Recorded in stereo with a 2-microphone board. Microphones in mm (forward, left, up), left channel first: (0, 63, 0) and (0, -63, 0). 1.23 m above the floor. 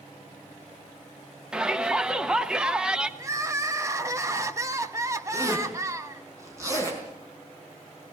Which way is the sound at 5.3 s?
25° right (ahead or behind).